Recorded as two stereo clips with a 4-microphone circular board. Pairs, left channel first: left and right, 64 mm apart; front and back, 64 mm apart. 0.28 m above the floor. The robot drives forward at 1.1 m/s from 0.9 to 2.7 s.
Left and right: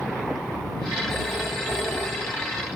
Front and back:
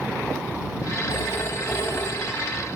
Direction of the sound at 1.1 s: 45° left.